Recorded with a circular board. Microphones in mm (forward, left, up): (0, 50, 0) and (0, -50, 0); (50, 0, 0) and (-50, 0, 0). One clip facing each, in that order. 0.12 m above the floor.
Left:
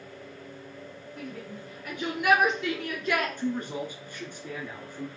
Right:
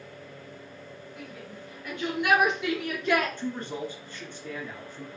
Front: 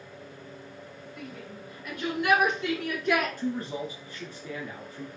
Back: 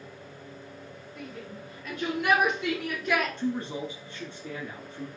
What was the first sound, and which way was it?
A shout, 130° left.